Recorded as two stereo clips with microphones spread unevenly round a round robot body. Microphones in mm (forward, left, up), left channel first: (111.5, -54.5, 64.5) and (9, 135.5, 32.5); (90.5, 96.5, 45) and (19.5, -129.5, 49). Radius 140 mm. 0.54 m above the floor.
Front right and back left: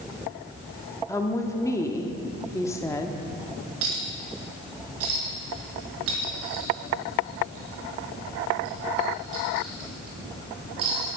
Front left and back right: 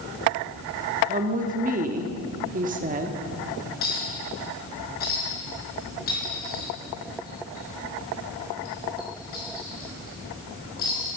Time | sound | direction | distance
1.1 | a woman speaking | 145° right | 1.0 m
3.8 | a clink | 130° left | 4.5 m